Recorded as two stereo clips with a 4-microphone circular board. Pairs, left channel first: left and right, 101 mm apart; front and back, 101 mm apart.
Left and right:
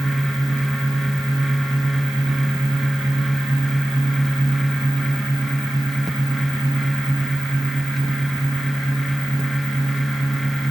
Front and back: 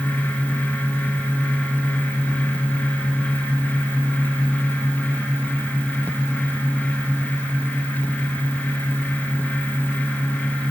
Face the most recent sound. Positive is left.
No sound to turn to.